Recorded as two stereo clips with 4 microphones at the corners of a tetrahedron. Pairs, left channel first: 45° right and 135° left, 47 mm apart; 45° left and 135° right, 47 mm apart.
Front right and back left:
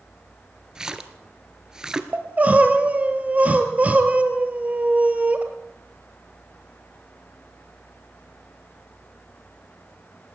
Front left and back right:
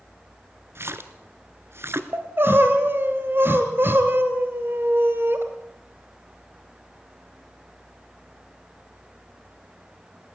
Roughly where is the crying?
Behind.